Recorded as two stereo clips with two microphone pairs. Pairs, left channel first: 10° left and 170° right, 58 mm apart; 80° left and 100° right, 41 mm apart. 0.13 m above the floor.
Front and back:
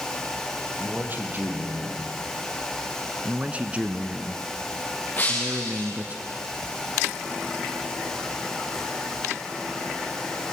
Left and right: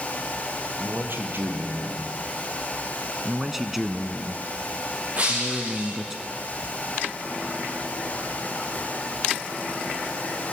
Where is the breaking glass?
55° right, 8.5 m.